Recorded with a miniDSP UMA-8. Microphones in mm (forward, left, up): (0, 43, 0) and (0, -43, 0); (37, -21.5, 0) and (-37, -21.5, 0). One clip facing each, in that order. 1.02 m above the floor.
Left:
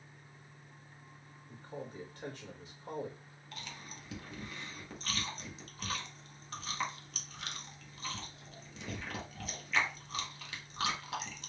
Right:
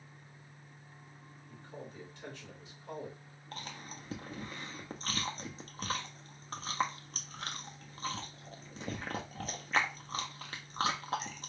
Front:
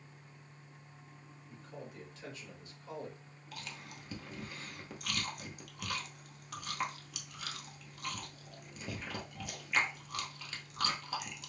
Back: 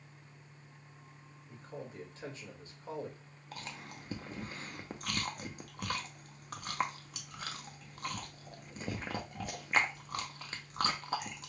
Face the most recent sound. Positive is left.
turn(degrees=-135)